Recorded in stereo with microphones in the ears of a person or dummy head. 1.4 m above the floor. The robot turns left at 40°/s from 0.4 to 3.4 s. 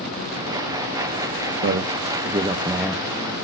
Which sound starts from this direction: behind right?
A man speaking, at 1.6 s.